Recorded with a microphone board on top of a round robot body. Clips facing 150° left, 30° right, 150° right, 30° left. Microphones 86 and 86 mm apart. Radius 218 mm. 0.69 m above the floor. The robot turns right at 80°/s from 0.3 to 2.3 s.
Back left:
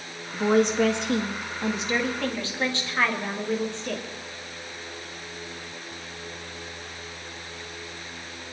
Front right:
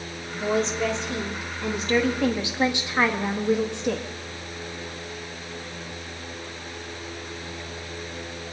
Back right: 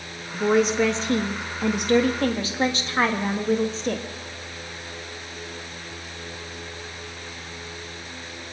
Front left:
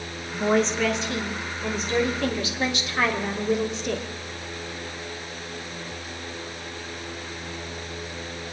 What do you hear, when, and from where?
0.3 s a woman speaking: 100° left, 1.8 m; by 4.1 s 100° right, 1.8 m